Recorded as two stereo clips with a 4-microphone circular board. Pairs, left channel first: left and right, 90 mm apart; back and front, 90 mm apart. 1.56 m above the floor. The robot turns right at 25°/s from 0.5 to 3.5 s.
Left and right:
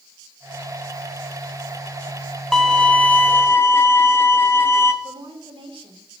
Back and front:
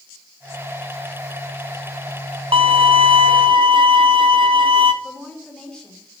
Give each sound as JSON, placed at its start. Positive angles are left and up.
{"t": 2.5, "sound": "a violin", "azimuth_deg": 5, "distance_m": 0.7}
{"t": 5.0, "sound": "a woman speaking", "azimuth_deg": -95, "distance_m": 3.0}